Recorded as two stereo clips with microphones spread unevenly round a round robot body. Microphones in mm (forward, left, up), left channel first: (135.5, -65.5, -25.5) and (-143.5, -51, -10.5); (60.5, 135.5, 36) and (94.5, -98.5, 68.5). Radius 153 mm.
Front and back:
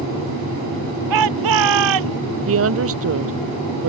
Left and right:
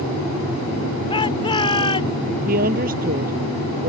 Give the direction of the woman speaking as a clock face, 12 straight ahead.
5 o'clock.